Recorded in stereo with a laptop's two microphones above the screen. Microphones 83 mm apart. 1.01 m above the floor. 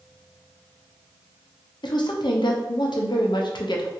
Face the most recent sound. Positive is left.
turn(degrees=70)  # may be behind; listen again after turning